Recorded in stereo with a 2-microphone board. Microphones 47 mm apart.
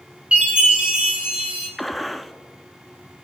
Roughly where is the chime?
Right.